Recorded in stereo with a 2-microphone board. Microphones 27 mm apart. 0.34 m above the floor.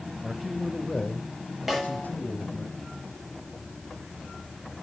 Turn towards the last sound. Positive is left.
turn(degrees=-5)  # may be behind; listen again after turning